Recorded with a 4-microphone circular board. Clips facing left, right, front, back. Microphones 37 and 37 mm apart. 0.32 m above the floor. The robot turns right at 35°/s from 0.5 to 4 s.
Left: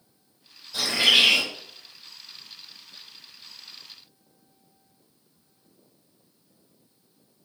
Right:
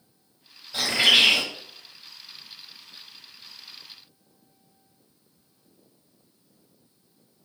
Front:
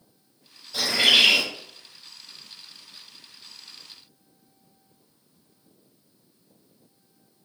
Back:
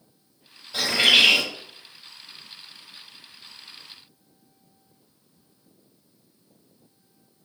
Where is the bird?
140° right, 1.3 m; by 1.4 s 115° right, 1.3 m.